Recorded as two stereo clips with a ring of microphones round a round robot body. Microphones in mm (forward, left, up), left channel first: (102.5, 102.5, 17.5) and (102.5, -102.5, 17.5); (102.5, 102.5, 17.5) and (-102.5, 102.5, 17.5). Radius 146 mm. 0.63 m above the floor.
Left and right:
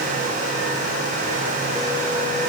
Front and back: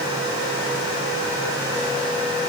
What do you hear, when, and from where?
Only background noise.